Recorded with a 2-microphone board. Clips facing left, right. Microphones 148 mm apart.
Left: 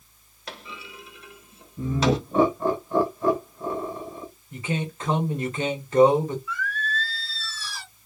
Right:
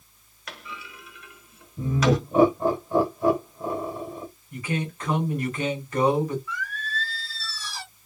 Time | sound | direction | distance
0.5 | a clunk | 30° left (ahead or behind) | 0.7 m
1.8 | laughter | 15° right (ahead or behind) | 1.1 m
4.5 | a man speaking | 25° left (ahead or behind) | 1.5 m
6.5 | singing | 50° right (ahead or behind) | 2 m